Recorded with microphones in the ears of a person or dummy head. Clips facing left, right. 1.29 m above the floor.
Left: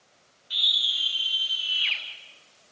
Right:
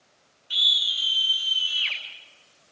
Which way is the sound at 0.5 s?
45° right (ahead or behind).